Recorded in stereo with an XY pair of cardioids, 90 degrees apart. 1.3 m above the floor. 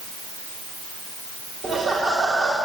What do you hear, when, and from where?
1.6 s laughter: 55° right, 3 m